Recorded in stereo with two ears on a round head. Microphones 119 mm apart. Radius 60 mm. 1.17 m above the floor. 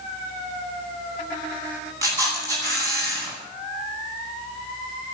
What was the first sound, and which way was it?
A camera shutter, 25° right (ahead or behind).